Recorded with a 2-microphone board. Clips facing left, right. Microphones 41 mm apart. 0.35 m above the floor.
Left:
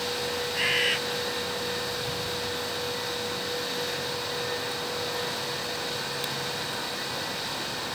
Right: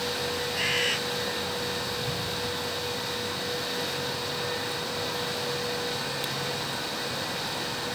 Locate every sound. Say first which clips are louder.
0.6 s a bird: left 2 dB; 10° left (ahead or behind)